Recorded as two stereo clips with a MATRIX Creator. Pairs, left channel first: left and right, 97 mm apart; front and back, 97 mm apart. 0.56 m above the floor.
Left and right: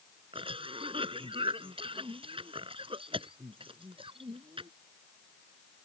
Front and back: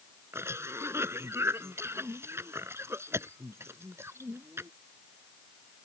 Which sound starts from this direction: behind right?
A cough, at 0.3 s.